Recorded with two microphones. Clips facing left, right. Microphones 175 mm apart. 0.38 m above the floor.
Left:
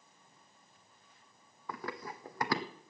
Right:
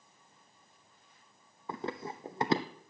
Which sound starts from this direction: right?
Running footsteps, at 1.7 s.